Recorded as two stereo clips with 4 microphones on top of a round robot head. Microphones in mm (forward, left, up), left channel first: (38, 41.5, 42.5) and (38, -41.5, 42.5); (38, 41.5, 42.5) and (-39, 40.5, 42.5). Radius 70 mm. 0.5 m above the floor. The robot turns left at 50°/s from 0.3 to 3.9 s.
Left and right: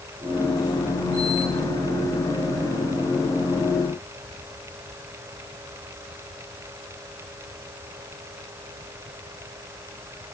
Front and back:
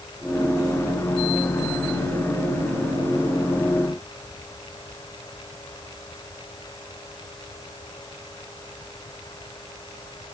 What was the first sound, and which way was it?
Only background noise.